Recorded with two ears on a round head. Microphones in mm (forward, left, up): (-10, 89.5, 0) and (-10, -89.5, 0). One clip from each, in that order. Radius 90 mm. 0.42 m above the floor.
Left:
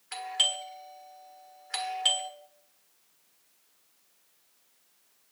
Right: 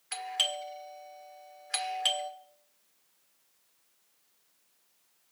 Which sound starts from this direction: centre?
A doorbell, at 0.1 s.